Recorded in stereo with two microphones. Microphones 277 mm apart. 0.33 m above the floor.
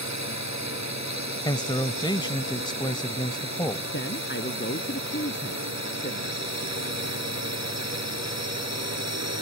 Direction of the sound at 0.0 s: 75° right (ahead or behind).